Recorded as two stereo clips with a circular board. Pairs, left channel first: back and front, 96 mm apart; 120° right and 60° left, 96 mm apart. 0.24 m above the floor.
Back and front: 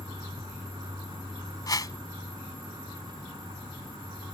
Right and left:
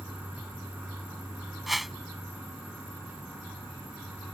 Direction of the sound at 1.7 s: 150° left.